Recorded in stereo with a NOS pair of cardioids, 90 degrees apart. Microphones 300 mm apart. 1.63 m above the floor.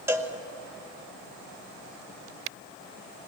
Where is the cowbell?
10° right, 2 m.